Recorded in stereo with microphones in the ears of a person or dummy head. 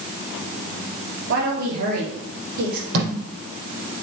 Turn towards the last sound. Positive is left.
turn(degrees=-60)  # may be behind; listen again after turning